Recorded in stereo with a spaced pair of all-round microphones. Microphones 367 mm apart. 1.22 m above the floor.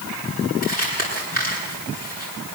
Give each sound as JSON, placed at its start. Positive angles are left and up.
{"t": 0.6, "sound": "crumpling", "side_deg": 25, "distance_m": 10.0}